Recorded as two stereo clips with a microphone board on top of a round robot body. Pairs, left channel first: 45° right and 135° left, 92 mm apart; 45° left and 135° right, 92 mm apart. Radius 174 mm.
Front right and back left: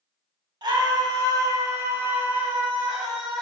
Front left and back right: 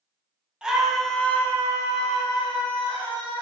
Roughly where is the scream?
Behind left.